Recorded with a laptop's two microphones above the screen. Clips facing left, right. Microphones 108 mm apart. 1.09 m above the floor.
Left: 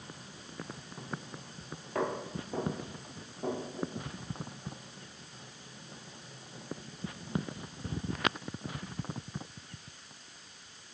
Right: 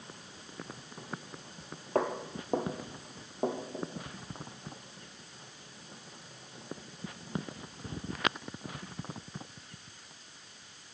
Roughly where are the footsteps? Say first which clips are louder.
Right 2 dB; right.